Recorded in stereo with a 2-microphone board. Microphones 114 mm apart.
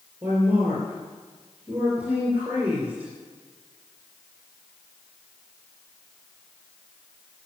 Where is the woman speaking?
15° right (ahead or behind), 3.5 m.